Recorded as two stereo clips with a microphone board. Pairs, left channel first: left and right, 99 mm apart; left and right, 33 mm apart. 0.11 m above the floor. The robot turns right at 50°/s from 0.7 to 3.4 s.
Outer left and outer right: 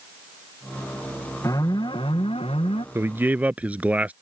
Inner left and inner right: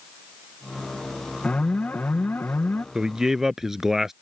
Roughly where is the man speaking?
Right.